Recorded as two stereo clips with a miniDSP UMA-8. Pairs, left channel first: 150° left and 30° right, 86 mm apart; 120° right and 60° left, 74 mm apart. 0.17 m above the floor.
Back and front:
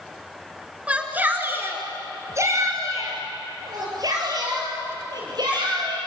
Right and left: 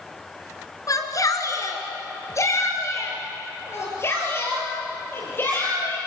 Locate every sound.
0.9 s a shout: 105° right, 2.5 m; by 6.0 s 60° right, 5.5 m